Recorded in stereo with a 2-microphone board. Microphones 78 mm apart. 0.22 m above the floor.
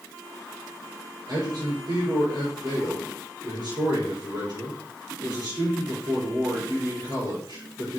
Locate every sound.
1.3 s a man speaking: 65° right (ahead or behind), 4 m